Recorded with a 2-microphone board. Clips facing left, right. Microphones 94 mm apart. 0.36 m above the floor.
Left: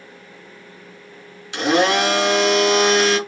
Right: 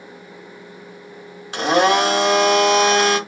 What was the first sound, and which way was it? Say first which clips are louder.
A blender: right 1 dB; 45° right (ahead or behind).